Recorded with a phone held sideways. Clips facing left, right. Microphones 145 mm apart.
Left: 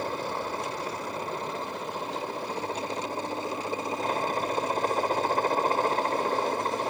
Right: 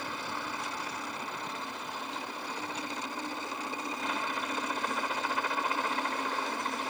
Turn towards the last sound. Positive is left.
turn(degrees=40)  # may be behind; listen again after turning